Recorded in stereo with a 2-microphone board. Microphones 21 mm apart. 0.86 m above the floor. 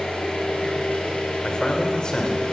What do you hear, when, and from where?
0.0 s an engine running: 65° left (ahead or behind), 9 m
1.4 s a man speaking: 40° left (ahead or behind), 4 m